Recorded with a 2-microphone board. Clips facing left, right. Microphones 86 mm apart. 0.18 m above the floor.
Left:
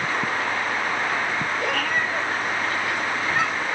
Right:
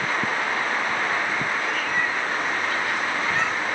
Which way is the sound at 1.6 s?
65° left (ahead or behind).